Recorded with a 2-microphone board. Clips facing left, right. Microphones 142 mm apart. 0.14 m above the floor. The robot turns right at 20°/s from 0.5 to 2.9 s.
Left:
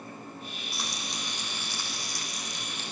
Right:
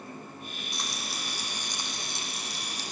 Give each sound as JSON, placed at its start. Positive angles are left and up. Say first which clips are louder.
{"t": 0.7, "sound": "frying", "louder": "even", "azimuth_deg": 175, "distance_m": 6.0}